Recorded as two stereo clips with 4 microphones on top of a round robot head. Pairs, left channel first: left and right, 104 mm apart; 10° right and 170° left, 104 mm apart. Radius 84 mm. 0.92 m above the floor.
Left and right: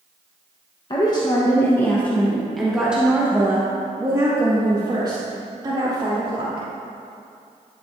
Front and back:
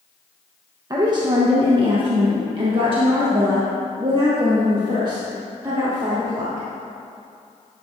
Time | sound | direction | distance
0.9 | a woman speaking | 125° left | 1.2 m